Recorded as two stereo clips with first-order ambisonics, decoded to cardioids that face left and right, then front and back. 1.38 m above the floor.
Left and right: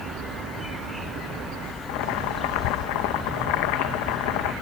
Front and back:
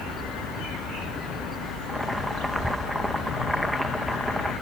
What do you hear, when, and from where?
1.9 s boiling: 90° left